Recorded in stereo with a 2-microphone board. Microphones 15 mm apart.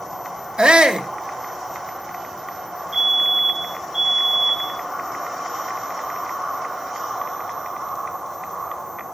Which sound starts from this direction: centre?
A fire alarm, at 2.9 s.